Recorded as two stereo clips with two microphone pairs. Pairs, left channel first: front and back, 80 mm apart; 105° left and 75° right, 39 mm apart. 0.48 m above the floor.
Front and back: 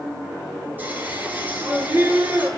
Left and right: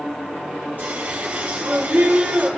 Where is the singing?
110° right, 5.5 m.